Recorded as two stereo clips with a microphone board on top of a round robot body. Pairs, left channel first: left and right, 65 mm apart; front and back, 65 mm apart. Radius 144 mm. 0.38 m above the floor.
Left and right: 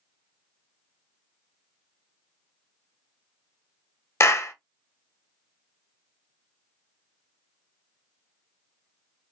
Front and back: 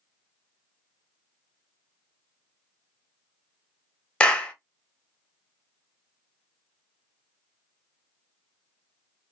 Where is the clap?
65° left, 1.1 m.